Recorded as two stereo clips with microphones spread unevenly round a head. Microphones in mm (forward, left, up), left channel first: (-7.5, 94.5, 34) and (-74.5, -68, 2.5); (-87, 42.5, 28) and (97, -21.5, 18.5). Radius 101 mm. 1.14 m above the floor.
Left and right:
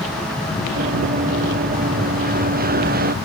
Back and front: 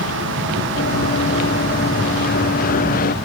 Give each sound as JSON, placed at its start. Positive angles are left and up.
{"t": 0.8, "sound": "running footsteps", "azimuth_deg": -155}